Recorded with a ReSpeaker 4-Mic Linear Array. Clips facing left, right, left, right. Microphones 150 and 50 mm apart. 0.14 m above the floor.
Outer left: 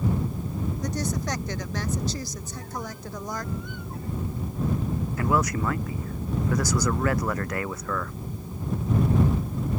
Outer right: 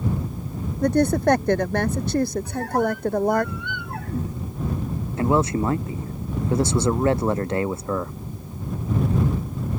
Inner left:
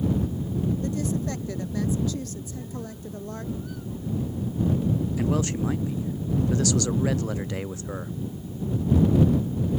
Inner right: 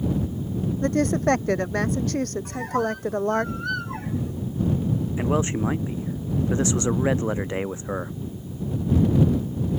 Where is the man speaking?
25° right (ahead or behind).